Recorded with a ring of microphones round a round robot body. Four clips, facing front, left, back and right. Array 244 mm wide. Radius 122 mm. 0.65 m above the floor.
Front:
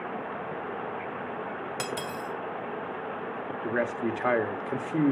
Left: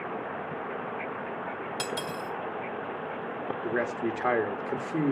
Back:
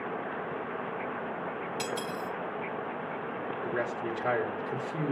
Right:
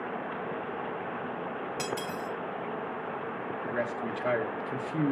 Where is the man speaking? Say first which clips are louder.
Left 4 dB, front 5 dB; 25° left, 1.5 m.